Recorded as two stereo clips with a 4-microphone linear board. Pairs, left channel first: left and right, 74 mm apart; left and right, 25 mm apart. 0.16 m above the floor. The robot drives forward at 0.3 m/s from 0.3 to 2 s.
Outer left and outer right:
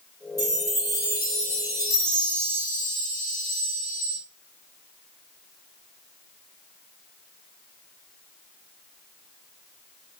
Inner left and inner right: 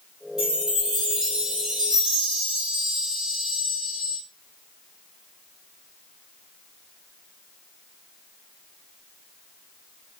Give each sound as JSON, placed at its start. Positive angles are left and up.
{"t": 0.4, "sound": "a chime", "side_deg": -35, "distance_m": 1.7}